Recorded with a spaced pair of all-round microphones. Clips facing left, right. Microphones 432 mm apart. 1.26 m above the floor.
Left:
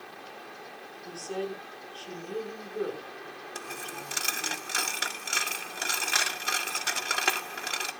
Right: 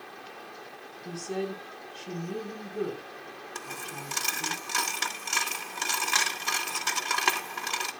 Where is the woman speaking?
40° right (ahead or behind), 4.5 m.